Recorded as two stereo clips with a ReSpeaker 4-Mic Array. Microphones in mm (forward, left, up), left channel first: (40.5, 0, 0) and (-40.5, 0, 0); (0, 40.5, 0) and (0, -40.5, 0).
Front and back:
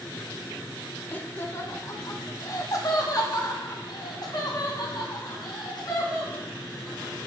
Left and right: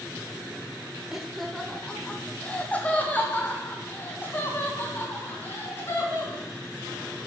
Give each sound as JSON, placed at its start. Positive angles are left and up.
{"t": 1.1, "sound": "laughter", "azimuth_deg": -15, "distance_m": 0.9}